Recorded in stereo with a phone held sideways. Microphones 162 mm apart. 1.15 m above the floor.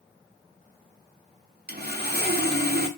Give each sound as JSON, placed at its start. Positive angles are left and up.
{"t": 1.7, "sound": "sawing", "side_deg": -80, "distance_m": 0.6}